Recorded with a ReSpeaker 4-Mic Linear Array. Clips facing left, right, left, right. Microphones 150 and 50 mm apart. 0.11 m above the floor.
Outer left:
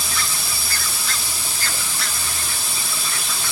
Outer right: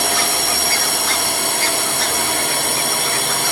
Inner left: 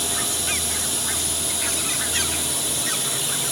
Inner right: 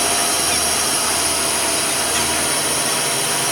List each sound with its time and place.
0.0 s a drone: 65° right (ahead or behind); by 3.5 s 60° right (ahead or behind)